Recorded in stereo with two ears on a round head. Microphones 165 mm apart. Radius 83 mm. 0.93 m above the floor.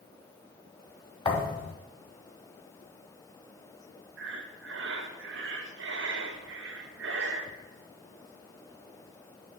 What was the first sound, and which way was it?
A thud, 30° left (ahead or behind).